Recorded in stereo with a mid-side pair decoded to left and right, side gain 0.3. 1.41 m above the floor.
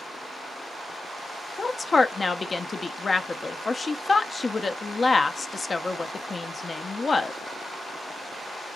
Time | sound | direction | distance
1.6 | a woman speaking | 45° left | 0.7 m